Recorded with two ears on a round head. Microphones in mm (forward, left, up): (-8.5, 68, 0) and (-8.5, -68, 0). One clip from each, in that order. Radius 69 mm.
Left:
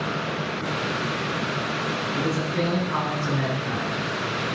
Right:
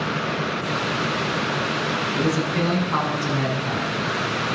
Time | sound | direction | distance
2.1 | a man speaking | 70° right (ahead or behind) | 6.5 m